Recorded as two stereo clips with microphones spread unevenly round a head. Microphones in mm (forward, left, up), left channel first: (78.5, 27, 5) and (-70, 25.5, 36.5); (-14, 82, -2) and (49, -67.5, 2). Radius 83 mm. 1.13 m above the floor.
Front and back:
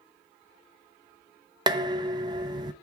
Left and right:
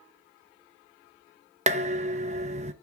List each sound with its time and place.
1.7 s dishes clattering: 115° right, 0.6 m